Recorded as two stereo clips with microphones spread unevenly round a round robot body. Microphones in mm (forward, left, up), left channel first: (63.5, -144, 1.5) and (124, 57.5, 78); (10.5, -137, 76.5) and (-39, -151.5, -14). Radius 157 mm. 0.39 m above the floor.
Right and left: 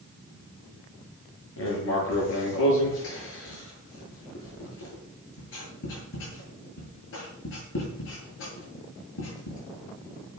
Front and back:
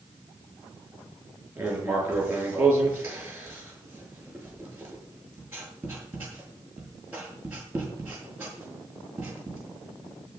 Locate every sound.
1.6 s writing: 130° right, 7.5 m